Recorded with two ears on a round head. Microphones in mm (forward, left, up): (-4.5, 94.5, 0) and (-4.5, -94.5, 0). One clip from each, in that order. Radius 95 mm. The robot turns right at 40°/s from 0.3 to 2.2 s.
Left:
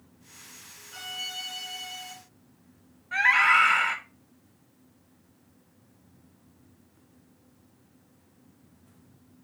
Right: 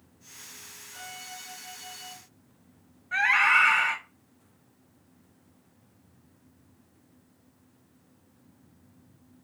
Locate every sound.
0.9 s a violin: 70° left, 2.0 m; by 2.1 s 120° left, 2.0 m
3.1 s a scream: centre (ahead or behind), 1.4 m